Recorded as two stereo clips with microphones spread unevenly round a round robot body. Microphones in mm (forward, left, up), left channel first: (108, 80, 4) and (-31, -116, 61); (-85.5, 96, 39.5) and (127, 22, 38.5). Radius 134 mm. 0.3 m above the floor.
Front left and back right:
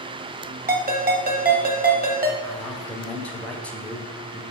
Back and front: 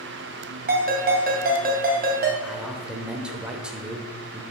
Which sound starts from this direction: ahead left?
A man speaking, at 2.4 s.